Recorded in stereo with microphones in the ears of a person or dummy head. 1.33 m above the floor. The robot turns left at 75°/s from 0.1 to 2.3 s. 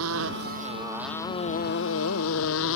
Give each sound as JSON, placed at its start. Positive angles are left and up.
{"t": 0.0, "sound": "a motorcycle", "side_deg": -80}